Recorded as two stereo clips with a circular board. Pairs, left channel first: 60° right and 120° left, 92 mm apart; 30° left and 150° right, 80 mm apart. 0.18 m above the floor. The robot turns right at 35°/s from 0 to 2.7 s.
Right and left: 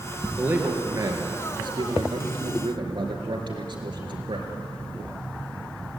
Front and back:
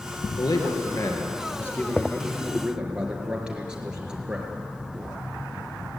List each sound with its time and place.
0.4 s a man speaking: 50° left, 3.5 m; by 4.5 s 130° left, 3.5 m